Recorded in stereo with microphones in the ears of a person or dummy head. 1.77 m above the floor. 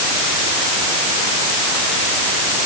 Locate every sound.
Only background noise.